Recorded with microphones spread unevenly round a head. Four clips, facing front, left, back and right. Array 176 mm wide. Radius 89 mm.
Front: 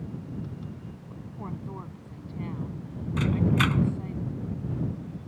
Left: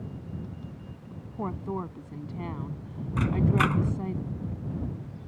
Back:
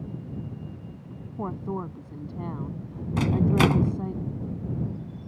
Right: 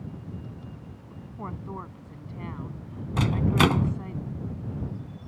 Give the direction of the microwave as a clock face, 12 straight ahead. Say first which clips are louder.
Right 2 dB, back 3 dB; 5 o'clock.